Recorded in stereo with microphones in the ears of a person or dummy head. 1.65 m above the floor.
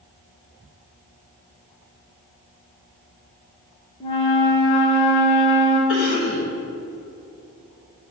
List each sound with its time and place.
4.0 s a flute: 30° left (ahead or behind), 1.5 m
5.9 s a cough: 65° left (ahead or behind), 2.5 m